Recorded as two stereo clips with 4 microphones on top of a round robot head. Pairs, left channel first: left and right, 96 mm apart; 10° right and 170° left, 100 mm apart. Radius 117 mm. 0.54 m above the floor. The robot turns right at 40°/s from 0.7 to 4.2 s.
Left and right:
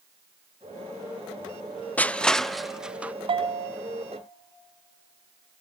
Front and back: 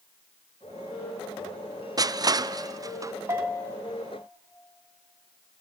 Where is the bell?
120° right, 1.0 m; by 3.7 s 105° right, 1.0 m.